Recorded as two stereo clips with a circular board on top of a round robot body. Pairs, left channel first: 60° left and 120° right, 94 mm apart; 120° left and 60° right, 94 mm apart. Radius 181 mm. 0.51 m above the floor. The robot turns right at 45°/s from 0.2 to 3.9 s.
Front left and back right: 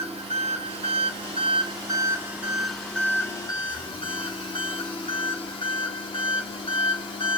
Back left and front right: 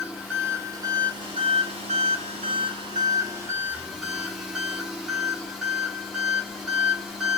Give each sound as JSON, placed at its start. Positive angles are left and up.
{"t": 0.0, "sound": "an engine running", "azimuth_deg": -140, "distance_m": 0.9}